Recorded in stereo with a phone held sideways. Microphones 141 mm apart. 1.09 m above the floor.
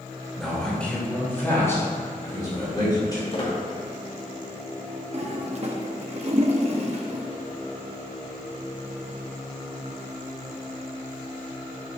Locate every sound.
0.4 s a man speaking: centre (ahead or behind), 2.5 m; by 3.2 s 30° left (ahead or behind), 4.5 m
3.3 s a squeak: 40° left (ahead or behind), 1.5 m
5.1 s a toilet flushing: 50° right (ahead or behind), 0.8 m